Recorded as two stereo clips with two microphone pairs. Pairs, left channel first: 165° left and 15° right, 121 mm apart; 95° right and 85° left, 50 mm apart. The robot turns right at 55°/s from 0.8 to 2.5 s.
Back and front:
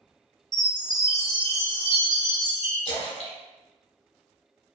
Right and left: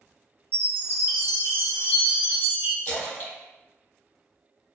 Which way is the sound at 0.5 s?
55° right.